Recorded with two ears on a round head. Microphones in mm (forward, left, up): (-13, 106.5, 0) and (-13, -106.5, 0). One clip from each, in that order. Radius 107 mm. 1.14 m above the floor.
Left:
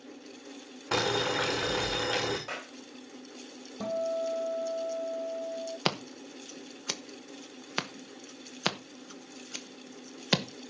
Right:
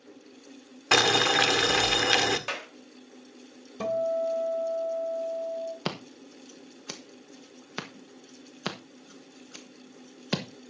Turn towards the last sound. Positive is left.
turn(degrees=25)  # may be behind; listen again after turning